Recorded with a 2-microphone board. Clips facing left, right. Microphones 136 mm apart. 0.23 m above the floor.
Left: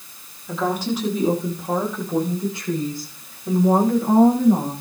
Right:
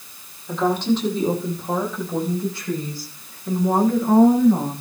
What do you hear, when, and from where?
0.5 s a woman speaking: 5° left (ahead or behind), 7.5 m; by 4.7 s 30° left (ahead or behind), 11.5 m